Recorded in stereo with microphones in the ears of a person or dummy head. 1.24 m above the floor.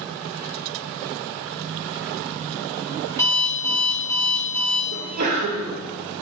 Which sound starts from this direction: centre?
An alarm clock, at 3.1 s.